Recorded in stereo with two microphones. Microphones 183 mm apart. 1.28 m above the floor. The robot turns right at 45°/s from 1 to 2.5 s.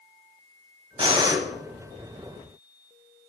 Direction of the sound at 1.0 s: 30° right (ahead or behind).